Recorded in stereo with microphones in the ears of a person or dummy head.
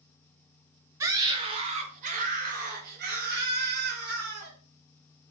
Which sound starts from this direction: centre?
A scream, at 1.0 s.